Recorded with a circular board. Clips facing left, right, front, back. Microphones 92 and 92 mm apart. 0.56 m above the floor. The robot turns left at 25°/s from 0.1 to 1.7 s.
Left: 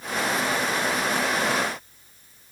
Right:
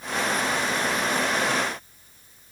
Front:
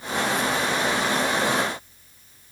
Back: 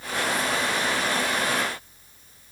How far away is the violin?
No violin in this recording.